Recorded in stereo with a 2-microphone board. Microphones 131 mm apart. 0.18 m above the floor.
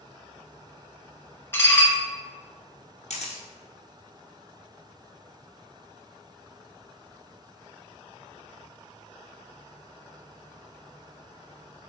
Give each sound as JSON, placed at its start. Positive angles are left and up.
{"t": 1.5, "sound": "dishes clattering", "side_deg": 20, "distance_m": 0.7}
{"t": 3.1, "sound": "a camera shutter", "side_deg": 75, "distance_m": 0.8}